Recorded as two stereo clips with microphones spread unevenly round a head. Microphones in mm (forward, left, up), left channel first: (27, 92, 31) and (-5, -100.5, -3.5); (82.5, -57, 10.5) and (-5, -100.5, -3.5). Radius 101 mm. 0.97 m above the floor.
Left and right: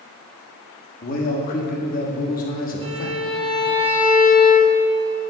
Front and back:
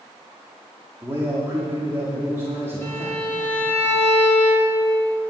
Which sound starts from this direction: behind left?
A man speaking, at 1.0 s.